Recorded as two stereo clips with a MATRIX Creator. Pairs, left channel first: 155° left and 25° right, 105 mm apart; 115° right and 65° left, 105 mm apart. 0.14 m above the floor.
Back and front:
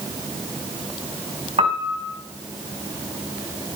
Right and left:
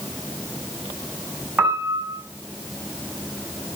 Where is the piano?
10° right, 6 m.